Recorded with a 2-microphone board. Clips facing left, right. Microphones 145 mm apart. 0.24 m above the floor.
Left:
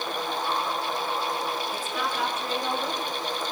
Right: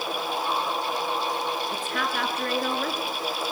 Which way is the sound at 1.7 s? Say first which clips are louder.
Right 1 dB; 70° right (ahead or behind).